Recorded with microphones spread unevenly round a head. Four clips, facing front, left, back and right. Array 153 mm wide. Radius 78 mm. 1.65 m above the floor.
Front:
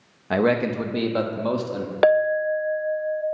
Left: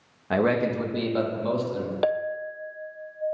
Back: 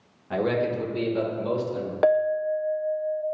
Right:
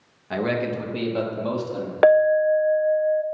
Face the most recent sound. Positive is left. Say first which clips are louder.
# right 13 dB, front 3 dB
turn(degrees=-45)